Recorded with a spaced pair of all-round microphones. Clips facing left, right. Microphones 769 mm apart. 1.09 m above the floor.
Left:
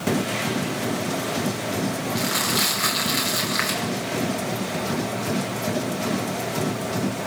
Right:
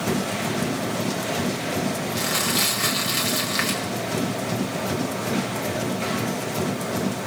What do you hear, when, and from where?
2.1 s crumpling: 60° right (ahead or behind), 6 m